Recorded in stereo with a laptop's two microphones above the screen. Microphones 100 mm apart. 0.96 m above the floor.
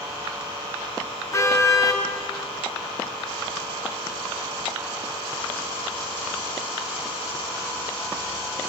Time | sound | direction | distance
1.3 | a car horn | 30° left (ahead or behind) | 6 m